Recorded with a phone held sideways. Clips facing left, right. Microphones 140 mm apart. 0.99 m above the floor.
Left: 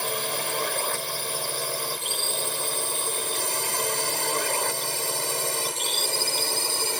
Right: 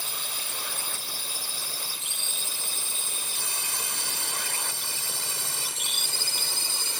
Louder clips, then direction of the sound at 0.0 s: Left 12 dB; 70° left (ahead or behind).